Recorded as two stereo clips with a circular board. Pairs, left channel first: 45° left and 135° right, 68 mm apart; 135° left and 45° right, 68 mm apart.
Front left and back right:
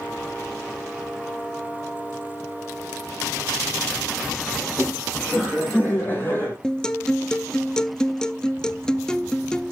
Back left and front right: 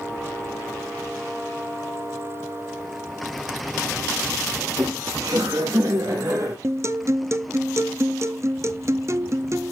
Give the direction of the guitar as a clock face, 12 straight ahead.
1 o'clock.